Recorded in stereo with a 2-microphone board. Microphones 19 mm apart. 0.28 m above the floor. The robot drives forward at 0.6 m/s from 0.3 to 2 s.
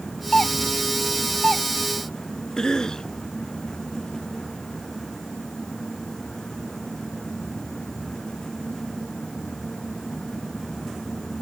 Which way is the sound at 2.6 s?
40° left (ahead or behind).